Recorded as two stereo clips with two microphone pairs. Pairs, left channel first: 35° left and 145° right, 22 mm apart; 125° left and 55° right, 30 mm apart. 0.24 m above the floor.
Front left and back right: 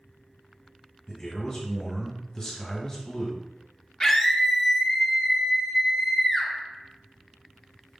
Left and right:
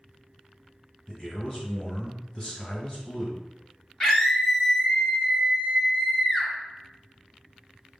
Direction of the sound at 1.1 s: 80° left.